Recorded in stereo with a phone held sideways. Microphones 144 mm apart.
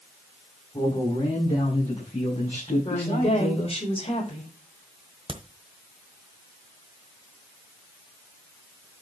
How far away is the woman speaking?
About 5 m.